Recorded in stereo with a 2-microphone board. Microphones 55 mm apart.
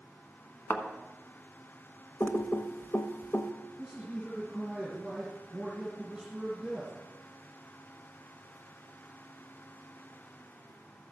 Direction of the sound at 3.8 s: 20° right (ahead or behind).